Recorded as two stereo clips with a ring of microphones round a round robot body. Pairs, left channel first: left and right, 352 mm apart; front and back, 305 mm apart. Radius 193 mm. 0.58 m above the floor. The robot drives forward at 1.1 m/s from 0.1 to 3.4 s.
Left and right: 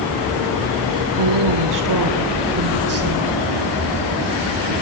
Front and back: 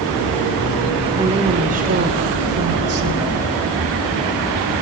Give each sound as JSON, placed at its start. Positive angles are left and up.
{"t": 1.2, "sound": "a woman speaking", "azimuth_deg": -100, "distance_m": 2.5}